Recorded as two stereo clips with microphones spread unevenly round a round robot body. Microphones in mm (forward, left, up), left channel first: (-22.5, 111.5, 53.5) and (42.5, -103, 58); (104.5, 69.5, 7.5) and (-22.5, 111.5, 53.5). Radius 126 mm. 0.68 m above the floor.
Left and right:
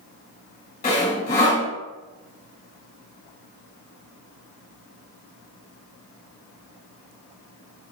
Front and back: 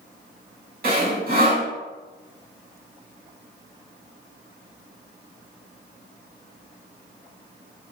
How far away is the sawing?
About 3 m.